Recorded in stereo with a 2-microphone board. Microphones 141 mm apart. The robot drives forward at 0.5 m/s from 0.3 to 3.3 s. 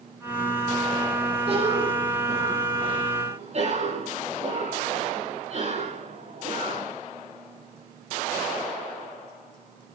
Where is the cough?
45° right (ahead or behind), 10 m; by 6.9 s 50° right (ahead or behind), 9.5 m.